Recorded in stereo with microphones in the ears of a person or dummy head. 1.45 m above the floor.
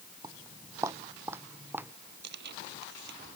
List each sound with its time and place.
0.2 s footsteps: 25° right (ahead or behind); by 1.9 s 15° right (ahead or behind)
2.2 s tearing paper: 60° right (ahead or behind)